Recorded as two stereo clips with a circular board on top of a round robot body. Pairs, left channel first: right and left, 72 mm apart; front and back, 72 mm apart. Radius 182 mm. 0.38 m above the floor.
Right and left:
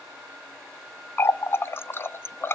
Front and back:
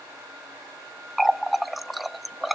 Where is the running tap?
90° right, 0.6 m.